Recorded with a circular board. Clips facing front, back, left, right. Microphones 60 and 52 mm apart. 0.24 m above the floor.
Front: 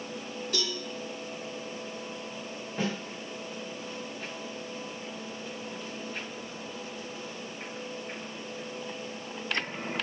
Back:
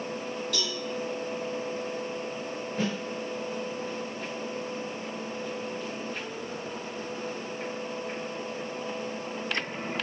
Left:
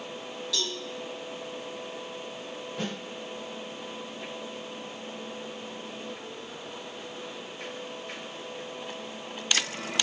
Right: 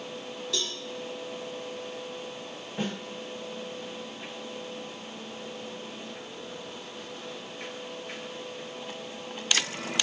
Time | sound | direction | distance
0.5 | a cowbell | 50° right | 1.6 m
2.8 | a snare drum | 40° right | 1.5 m